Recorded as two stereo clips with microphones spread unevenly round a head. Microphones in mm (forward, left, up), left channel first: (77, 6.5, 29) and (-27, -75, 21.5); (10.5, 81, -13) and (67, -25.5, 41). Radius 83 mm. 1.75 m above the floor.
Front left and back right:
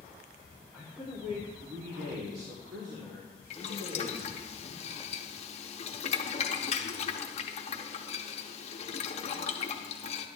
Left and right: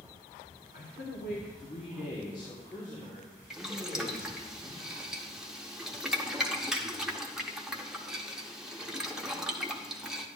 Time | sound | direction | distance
0.7 | a man speaking | 140° left | 1.2 m
3.5 | boiling | 10° left | 0.8 m